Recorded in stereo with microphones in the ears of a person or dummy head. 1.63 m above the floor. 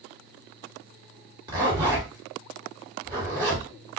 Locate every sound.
1.5 s a zipper: 20° right (ahead or behind), 1.4 m